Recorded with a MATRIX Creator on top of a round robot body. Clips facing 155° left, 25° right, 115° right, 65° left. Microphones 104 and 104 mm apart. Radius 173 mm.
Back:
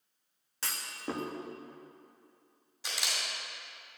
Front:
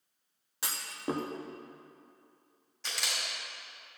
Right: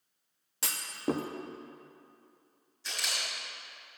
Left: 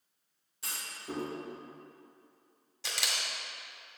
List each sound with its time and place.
0.6 s a clunk: 100° right, 0.6 m
2.8 s a camera shutter: 75° left, 1.7 m